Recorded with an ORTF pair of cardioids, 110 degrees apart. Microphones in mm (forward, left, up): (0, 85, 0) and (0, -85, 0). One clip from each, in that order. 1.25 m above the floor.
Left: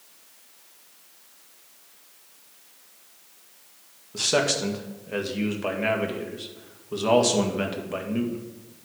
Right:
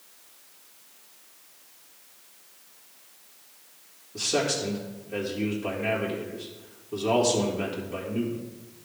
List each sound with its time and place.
4.1 s a man speaking: 70° left, 1.8 m